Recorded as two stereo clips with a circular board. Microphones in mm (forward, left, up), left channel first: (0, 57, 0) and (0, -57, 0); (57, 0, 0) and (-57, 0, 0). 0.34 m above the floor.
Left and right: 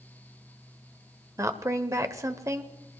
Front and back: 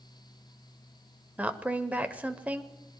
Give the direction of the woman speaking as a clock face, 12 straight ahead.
4 o'clock.